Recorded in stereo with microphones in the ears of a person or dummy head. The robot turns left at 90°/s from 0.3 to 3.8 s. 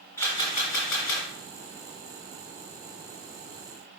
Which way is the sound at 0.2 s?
160° left.